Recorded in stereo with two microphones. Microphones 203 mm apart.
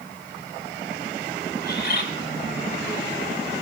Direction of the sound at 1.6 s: 55° left (ahead or behind).